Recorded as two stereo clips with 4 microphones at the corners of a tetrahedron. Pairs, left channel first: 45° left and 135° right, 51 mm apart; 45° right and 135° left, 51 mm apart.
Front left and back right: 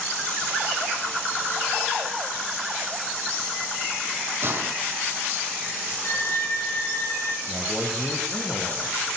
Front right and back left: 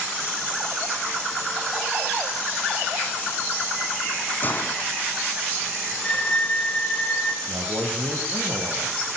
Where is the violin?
20° left, 3.5 m.